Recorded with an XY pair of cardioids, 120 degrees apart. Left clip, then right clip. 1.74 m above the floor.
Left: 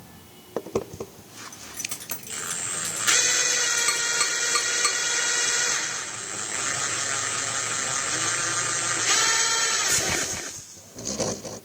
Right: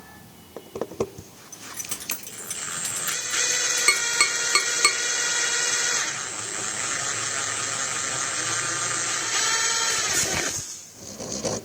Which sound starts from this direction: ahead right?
Tapping, at 3.9 s.